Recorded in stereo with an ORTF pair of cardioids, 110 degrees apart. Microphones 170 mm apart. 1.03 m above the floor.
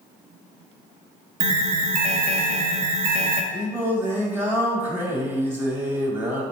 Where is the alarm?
45° right, 0.6 m.